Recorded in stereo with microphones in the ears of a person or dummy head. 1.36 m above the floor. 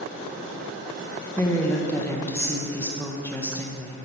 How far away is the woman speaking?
About 0.8 m.